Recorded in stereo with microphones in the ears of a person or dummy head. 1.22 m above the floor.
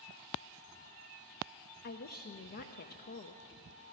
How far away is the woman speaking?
About 0.7 m.